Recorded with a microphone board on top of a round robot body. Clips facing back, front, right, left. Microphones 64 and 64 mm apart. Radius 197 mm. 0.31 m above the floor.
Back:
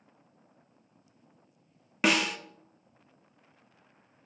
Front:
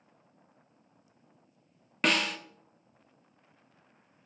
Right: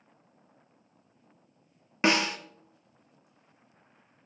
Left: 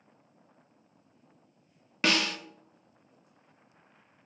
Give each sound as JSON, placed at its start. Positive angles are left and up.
{"t": 2.0, "sound": "a snare drum", "azimuth_deg": -105, "distance_m": 1.0}